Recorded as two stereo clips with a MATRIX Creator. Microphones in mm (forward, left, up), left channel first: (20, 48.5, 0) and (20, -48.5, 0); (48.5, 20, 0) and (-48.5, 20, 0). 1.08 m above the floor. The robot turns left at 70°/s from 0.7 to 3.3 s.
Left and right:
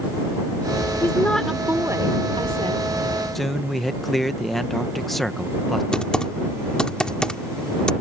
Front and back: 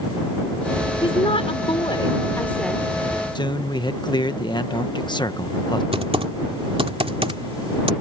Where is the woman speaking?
30° left; by 2.8 s 95° right.